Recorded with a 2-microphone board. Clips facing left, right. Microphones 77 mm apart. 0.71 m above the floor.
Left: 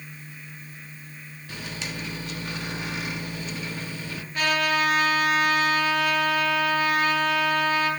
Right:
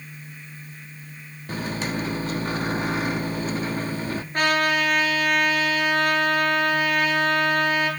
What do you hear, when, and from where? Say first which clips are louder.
1.5 s a microwave: right 8 dB; 40° right (ahead or behind), 1.0 m
4.3 s a trumpet: right 2 dB; 50° right (ahead or behind), 8 m